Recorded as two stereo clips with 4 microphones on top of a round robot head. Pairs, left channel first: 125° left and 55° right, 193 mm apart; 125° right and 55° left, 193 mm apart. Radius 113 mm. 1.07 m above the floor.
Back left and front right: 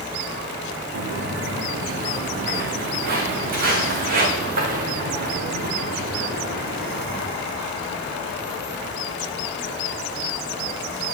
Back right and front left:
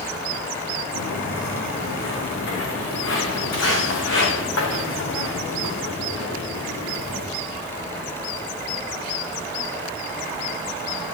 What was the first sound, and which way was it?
Footsteps, 95° right.